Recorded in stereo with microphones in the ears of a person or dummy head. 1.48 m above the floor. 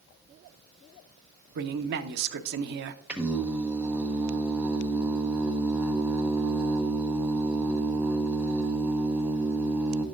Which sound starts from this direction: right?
A man speaking, at 1.6 s.